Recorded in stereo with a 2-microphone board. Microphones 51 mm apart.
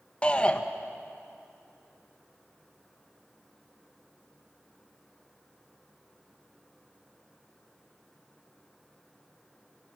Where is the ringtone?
I don't hear a ringtone.